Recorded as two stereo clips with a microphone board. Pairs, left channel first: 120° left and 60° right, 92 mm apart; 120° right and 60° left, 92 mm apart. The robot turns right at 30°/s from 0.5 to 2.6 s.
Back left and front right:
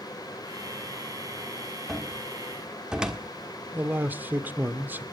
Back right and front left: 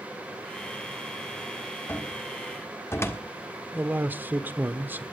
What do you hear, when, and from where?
1.9 s a cupboard door: 150° right, 1.4 m; by 3.2 s 130° right, 1.4 m
3.7 s a man speaking: straight ahead, 1.1 m